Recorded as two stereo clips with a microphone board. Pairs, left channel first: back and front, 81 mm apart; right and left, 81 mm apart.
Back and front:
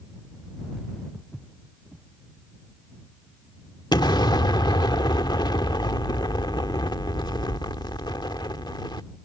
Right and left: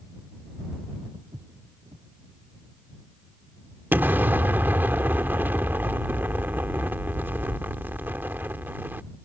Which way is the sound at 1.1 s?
95° left.